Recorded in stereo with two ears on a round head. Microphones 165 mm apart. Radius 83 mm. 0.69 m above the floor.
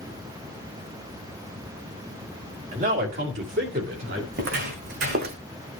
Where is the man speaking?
40° right (ahead or behind), 1.8 m; by 4.2 s 65° right (ahead or behind), 2.5 m.